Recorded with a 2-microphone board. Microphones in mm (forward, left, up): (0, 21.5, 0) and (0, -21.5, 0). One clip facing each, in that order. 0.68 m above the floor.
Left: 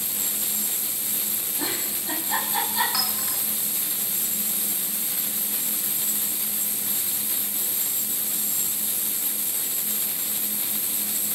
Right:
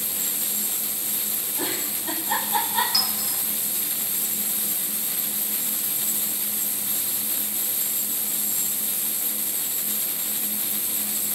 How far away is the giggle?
About 4.5 m.